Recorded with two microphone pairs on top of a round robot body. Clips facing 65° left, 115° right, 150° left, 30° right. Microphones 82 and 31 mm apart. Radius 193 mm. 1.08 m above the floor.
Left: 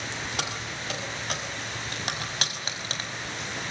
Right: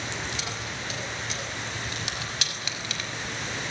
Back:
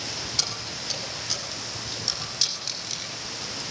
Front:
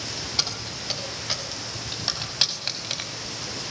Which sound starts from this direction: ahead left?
Keys jangling, at 0.4 s.